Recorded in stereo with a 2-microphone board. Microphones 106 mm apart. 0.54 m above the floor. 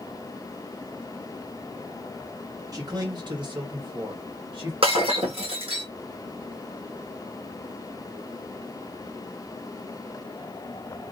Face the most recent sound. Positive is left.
turn(degrees=-65)  # may be behind; listen again after turning